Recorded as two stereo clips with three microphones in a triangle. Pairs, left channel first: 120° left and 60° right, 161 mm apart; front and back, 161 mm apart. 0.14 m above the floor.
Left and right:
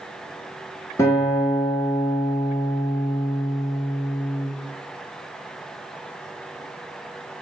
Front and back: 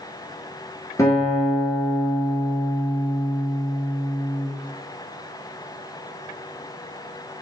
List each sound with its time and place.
1.0 s a guitar: 60° left, 1.2 m